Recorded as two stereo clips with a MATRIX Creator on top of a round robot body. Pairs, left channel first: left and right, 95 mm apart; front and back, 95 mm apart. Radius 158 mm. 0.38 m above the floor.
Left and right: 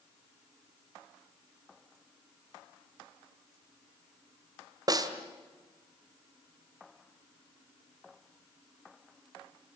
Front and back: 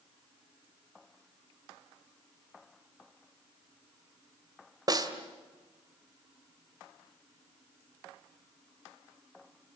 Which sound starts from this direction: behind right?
A snare drum, at 4.9 s.